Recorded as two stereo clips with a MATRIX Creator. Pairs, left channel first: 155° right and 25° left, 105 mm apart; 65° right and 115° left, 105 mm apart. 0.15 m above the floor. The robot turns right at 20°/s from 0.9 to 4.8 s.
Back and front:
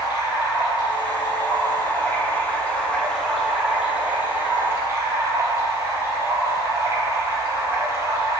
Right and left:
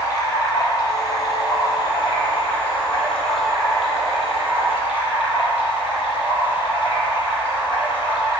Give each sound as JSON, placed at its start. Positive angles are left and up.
{"t": 0.0, "sound": "running water", "azimuth_deg": -115, "distance_m": 2.5}